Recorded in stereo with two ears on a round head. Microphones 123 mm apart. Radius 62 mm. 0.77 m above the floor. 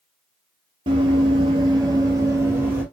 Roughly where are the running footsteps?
Right.